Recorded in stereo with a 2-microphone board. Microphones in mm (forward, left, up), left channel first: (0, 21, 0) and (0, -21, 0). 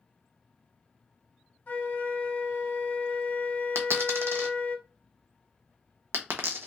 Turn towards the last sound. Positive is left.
turn(degrees=-80)